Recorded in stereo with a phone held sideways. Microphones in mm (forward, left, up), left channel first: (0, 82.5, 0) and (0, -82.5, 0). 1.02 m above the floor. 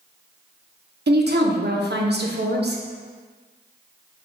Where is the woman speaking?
70° right (ahead or behind), 0.6 m.